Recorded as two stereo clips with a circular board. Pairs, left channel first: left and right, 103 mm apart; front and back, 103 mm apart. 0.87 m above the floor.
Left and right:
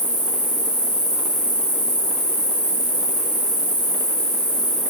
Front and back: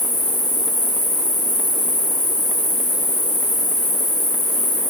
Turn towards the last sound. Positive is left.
turn(degrees=-65)